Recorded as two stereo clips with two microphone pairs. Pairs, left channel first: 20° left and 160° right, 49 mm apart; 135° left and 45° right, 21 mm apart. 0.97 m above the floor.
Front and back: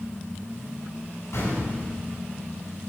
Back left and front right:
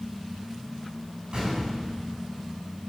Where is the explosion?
5° left, 7.5 m.